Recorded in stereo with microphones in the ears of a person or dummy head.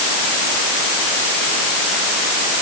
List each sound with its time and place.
Only background noise.